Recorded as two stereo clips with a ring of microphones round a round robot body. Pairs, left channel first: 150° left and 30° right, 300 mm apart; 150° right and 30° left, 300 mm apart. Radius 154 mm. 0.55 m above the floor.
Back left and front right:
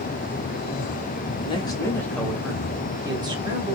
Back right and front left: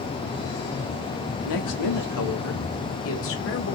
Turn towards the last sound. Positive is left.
turn(degrees=-100)